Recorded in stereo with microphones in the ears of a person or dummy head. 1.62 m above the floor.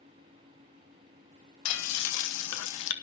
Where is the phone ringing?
No phone ringing in this recording.